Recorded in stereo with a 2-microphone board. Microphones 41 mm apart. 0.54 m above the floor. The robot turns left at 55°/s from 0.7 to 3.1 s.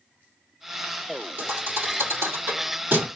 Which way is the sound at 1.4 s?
55° right (ahead or behind).